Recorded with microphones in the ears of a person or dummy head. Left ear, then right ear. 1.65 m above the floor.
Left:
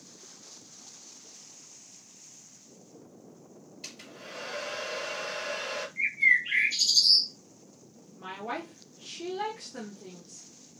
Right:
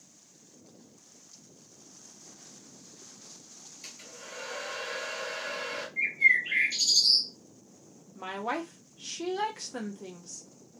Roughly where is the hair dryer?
Centre.